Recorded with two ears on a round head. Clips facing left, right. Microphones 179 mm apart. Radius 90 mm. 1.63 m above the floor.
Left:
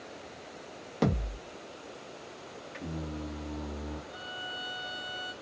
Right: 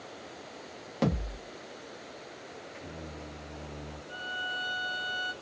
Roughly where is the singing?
Left.